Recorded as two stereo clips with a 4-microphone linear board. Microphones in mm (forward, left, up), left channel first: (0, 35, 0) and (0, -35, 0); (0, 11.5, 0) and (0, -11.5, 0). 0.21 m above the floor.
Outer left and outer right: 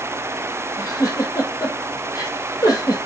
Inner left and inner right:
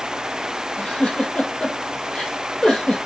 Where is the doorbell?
No doorbell in this recording.